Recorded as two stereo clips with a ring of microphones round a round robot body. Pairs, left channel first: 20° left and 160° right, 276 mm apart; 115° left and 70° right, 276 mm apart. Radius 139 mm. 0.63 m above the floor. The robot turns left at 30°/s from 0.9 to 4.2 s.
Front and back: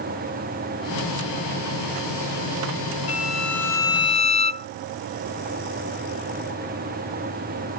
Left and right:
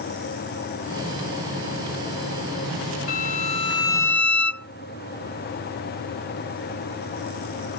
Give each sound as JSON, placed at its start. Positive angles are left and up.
{"t": 3.1, "sound": "a violin", "azimuth_deg": 90}